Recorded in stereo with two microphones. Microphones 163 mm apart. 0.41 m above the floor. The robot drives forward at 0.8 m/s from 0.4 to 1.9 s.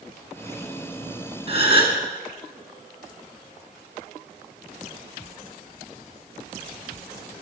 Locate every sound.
1.5 s a gasp: 35° right (ahead or behind), 3 m